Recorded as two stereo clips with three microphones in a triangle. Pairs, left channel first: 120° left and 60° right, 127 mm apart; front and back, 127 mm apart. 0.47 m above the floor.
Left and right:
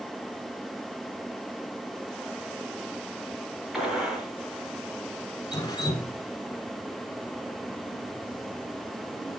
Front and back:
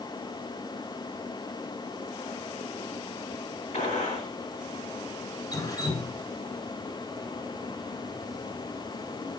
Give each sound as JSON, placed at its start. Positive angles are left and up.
{"t": 3.7, "sound": "a gunshot", "azimuth_deg": 30, "distance_m": 3.0}
{"t": 5.5, "sound": "dripping", "azimuth_deg": 60, "distance_m": 1.1}